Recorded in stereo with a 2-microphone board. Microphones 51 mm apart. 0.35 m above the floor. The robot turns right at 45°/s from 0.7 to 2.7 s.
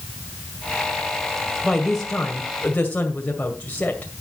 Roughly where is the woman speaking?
Ahead.